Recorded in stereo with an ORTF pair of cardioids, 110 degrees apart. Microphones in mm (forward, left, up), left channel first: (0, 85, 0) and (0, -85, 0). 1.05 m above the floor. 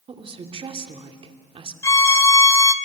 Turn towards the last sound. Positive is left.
turn(degrees=15)